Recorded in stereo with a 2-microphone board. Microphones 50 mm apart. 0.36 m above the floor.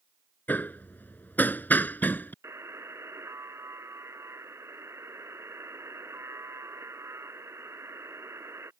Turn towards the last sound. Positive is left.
turn(degrees=-75)  # may be behind; listen again after turning